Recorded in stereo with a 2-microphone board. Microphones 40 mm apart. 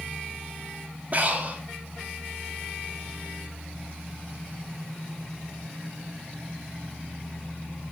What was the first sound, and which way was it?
Breathing, 40° right (ahead or behind).